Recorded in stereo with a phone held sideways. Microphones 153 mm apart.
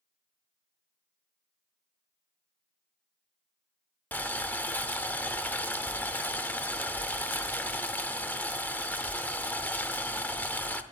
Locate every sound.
4.1 s boiling: 10° left (ahead or behind), 0.7 m